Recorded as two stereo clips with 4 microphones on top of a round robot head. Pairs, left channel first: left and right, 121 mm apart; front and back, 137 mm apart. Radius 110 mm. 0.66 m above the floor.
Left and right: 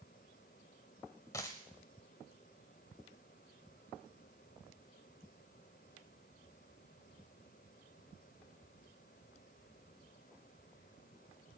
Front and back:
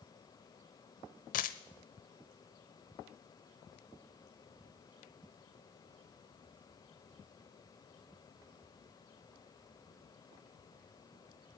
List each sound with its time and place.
1.3 s a dropped coin: 15° left, 0.7 m